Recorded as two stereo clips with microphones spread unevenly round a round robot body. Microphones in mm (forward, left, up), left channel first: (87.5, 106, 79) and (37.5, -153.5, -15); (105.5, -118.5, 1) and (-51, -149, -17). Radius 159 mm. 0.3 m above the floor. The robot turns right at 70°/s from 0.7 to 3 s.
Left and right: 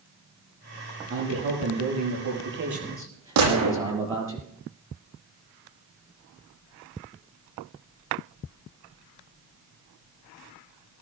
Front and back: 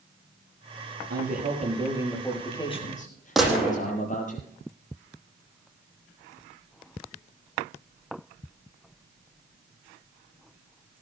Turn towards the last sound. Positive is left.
turn(degrees=-80)